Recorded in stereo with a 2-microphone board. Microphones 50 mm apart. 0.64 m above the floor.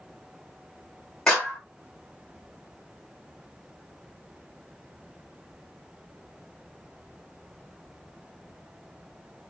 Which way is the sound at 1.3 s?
15° left (ahead or behind).